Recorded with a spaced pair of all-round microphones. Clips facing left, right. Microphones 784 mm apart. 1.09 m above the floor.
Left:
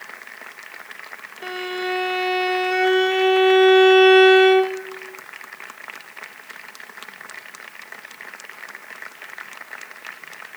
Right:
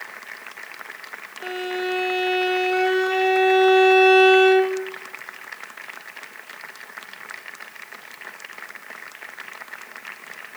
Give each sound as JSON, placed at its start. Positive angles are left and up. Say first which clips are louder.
{"t": 1.4, "sound": "a violin", "louder": "right 1 dB", "side_deg": 35, "distance_m": 2.5}